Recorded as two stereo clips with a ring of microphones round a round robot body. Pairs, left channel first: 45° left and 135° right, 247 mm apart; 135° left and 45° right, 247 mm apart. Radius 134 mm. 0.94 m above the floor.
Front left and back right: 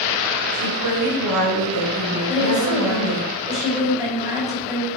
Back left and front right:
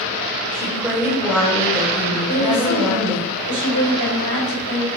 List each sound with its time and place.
0.5 s a woman speaking: 125° right, 4 m
2.3 s a woman speaking: 60° right, 5 m